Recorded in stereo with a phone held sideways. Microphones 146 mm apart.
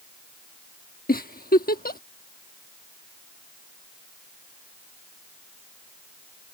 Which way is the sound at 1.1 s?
85° left.